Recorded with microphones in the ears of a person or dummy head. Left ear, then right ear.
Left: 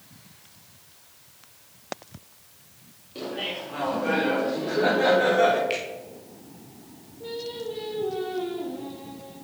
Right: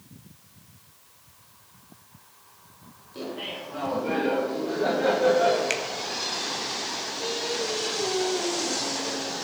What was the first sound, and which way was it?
Laughter, 15° left (ahead or behind).